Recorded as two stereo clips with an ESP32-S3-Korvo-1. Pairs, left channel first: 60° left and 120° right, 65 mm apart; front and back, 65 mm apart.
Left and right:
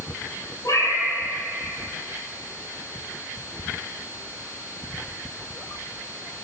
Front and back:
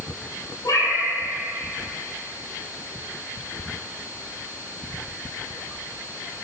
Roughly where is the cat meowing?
Ahead left.